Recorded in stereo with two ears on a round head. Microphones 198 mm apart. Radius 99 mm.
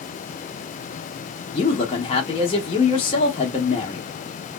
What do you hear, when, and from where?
1.5 s a man speaking: 25° left (ahead or behind), 0.7 m